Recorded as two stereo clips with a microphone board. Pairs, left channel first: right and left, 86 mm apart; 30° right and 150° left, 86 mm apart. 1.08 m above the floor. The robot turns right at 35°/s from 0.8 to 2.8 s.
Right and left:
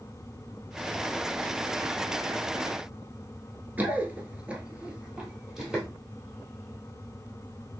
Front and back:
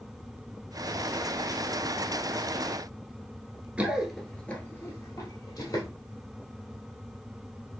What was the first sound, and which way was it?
Running footsteps, 105° left.